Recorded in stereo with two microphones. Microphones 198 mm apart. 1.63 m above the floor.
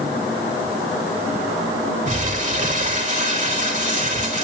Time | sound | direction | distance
2.1 | crumpling | 40° right (ahead or behind) | 3 m